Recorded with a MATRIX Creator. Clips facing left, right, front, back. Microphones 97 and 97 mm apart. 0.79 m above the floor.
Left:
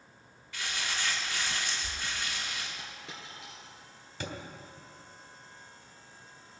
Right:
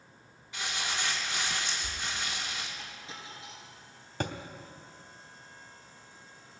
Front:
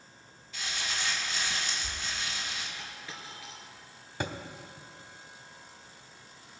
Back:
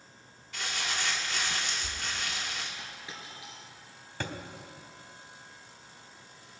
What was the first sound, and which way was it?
Crumpling, 160° right.